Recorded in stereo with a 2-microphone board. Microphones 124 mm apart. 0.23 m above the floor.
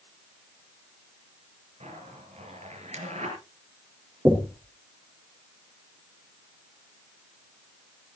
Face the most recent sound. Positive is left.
turn(degrees=-15)  # may be behind; listen again after turning